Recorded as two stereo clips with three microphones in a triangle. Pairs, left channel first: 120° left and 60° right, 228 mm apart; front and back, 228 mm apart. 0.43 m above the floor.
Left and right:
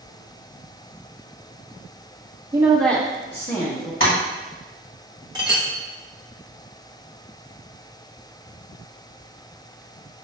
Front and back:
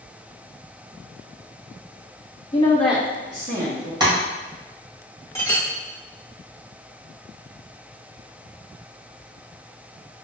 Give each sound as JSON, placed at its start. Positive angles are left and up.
{"t": 2.5, "sound": "a woman speaking", "azimuth_deg": -5, "distance_m": 0.8}
{"t": 4.0, "sound": "tapping", "azimuth_deg": 110, "distance_m": 1.3}
{"t": 5.3, "sound": "a clink", "azimuth_deg": -50, "distance_m": 0.7}